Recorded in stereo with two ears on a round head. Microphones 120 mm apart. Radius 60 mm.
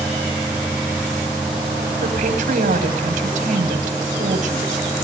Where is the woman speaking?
60° right (ahead or behind), 5.5 m.